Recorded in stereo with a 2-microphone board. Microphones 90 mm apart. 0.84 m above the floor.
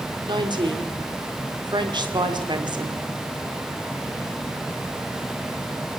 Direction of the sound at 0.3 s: 50° right (ahead or behind).